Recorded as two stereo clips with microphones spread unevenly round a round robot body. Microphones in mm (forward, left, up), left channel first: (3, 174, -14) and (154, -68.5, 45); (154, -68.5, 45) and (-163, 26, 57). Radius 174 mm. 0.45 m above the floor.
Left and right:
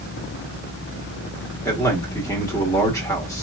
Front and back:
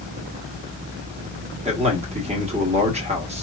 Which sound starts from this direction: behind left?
A man speaking, at 1.6 s.